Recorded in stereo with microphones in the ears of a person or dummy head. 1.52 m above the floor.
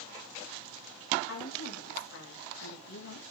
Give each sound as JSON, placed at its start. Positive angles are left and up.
{"t": 1.3, "sound": "a woman speaking", "side_deg": 80, "distance_m": 3.0}